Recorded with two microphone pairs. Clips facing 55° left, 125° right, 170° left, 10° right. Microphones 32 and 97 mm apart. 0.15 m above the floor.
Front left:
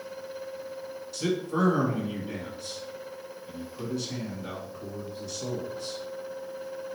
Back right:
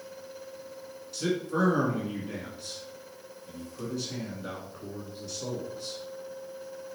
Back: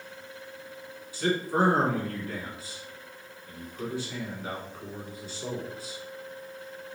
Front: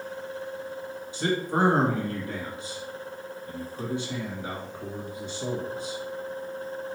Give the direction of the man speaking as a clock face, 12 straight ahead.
1 o'clock.